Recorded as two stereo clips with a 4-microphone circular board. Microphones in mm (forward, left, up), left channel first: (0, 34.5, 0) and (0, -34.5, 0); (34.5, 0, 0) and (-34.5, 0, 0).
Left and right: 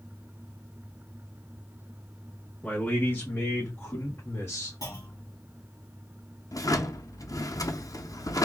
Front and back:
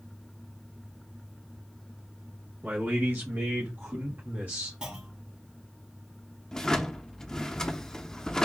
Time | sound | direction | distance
2.6 | a man speaking | 140° left | 1.1 m
4.8 | a clunk | 100° left | 1.8 m
6.5 | a drawer | 80° left | 0.6 m